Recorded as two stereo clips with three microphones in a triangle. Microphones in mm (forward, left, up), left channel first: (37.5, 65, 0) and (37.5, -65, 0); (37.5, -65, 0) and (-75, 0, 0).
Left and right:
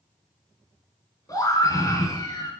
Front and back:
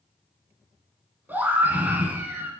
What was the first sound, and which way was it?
A scream, 90° left.